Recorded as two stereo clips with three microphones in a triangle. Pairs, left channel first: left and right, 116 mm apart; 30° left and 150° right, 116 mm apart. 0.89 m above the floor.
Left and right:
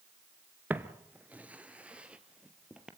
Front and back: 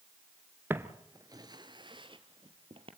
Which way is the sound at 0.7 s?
130° right.